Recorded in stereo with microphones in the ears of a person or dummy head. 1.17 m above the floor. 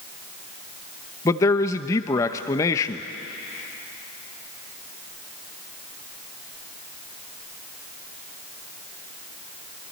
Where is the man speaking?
15° left (ahead or behind), 0.8 m.